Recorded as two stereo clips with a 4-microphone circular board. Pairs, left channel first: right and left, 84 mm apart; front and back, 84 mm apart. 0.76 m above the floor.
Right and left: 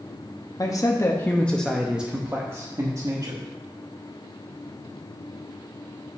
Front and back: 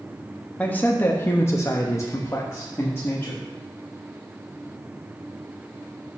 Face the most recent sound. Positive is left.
turn(degrees=60)